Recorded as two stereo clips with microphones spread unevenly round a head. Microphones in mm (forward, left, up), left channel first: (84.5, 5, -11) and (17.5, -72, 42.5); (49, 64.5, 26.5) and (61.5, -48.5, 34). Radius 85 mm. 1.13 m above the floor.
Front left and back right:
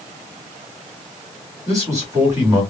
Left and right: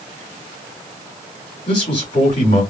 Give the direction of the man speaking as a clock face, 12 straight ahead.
7 o'clock.